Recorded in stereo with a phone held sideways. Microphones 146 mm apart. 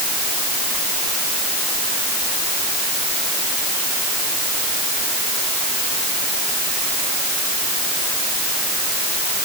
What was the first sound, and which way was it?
Only background noise.